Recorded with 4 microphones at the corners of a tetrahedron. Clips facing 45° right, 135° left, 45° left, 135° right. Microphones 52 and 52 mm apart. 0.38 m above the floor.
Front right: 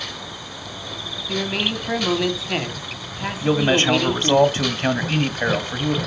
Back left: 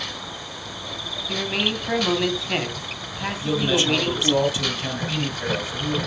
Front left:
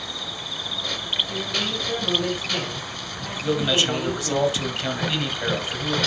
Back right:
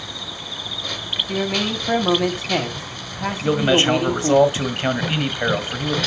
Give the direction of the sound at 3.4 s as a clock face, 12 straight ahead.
3 o'clock.